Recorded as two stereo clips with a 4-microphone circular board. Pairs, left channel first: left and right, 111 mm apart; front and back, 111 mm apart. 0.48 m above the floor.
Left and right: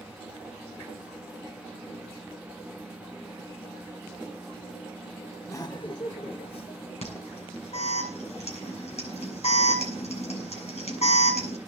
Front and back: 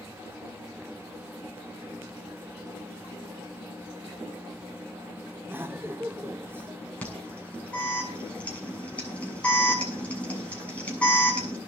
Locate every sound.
5.5 s laughter: 125° left, 0.8 m; by 7.0 s 110° left, 3 m
7.0 s an alarm: 80° left, 7 m